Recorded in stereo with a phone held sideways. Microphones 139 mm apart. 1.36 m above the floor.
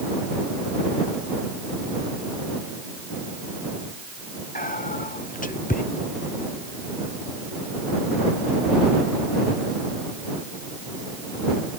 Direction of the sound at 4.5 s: 75° left (ahead or behind).